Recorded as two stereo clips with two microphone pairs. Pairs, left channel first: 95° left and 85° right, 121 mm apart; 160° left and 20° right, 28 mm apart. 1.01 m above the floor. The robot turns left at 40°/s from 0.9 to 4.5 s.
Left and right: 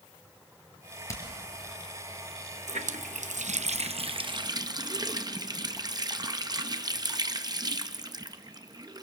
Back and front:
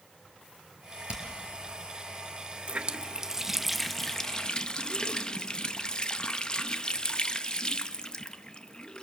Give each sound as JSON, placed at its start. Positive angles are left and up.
{"t": 1.1, "sound": "hammering", "azimuth_deg": 35, "distance_m": 4.5}
{"t": 2.7, "sound": "a running tap", "azimuth_deg": -65, "distance_m": 0.7}